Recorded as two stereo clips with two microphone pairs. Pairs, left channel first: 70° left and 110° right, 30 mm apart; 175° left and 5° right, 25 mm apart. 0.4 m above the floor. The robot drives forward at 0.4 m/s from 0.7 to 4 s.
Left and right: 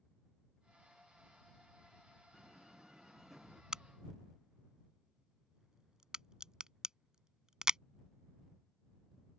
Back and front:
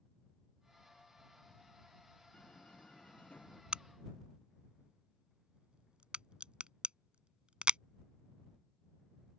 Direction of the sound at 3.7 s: 40° right.